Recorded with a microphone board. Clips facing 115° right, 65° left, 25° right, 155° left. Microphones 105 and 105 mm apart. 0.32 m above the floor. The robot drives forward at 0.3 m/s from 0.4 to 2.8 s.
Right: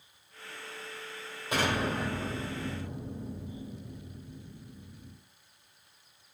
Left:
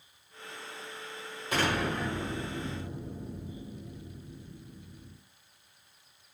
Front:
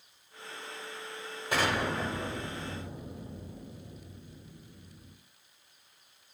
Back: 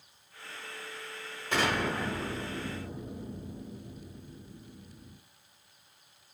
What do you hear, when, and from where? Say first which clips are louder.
1.5 s an explosion: even, even; 85° right, 1.3 m; by 5.2 s 120° right, 1.3 m